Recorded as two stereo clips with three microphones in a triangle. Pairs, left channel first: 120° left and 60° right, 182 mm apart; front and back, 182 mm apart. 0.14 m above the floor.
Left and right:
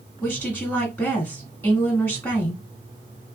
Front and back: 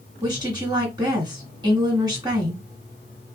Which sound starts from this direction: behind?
A woman speaking, at 0.2 s.